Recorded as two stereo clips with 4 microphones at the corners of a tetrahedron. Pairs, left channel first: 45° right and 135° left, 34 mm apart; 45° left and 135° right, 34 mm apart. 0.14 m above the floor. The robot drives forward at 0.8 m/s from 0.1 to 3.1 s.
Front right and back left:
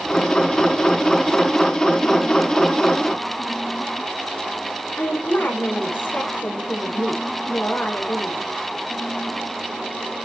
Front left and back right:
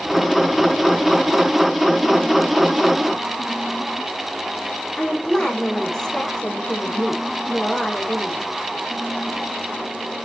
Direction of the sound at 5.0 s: 30° right.